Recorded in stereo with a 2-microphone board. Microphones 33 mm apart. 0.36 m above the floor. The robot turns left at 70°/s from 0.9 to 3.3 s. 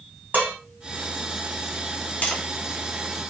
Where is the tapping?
45° left (ahead or behind), 0.7 m; by 2.4 s 30° left (ahead or behind), 0.7 m.